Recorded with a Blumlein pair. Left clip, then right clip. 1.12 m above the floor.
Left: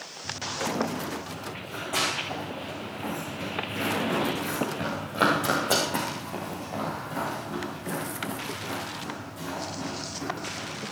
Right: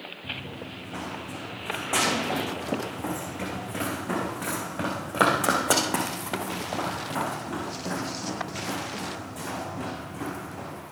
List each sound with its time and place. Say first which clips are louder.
0.2 s running footsteps: left 7 dB; 25° right, 5.5 m